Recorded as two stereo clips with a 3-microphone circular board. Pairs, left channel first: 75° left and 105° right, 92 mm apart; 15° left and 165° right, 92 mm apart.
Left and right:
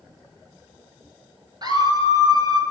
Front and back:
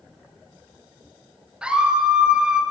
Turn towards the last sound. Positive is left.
turn(degrees=-90)